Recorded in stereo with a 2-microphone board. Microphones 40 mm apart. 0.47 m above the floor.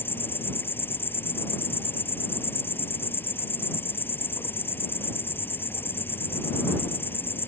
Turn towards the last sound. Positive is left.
turn(degrees=60)  # may be behind; listen again after turning